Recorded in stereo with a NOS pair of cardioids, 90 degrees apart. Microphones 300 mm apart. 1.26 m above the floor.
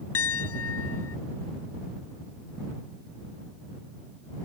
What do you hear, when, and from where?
0.1 s a piano: 50° left